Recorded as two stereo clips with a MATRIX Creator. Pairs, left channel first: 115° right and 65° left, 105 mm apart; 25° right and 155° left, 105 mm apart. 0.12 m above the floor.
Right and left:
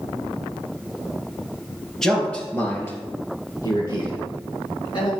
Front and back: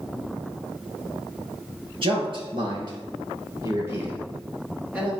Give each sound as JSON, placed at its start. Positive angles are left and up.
{"t": 2.0, "sound": "a man speaking", "azimuth_deg": 165, "distance_m": 2.0}